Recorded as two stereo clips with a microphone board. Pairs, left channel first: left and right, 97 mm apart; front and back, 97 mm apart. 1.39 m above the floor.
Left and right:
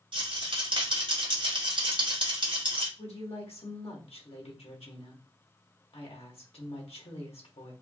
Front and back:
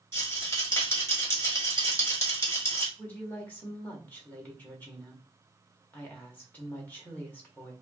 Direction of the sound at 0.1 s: 60° right.